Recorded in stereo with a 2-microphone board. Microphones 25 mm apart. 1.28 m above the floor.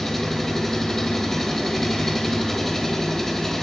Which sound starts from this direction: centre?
An engine running, at 0.0 s.